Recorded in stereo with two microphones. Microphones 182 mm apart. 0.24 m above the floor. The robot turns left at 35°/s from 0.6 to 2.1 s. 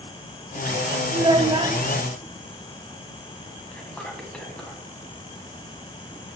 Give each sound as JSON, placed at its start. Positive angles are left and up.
{"t": 1.1, "sound": "a child speaking", "side_deg": -25, "distance_m": 0.6}
{"t": 3.7, "sound": "whispering", "side_deg": 5, "distance_m": 1.6}